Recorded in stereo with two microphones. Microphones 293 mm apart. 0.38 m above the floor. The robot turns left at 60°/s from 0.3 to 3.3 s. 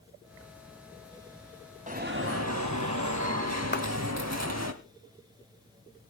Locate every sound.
1.9 s an alarm: 25° right, 1.6 m; by 4.7 s 115° right, 1.6 m
3.7 s a clap: 40° left (ahead or behind), 1.5 m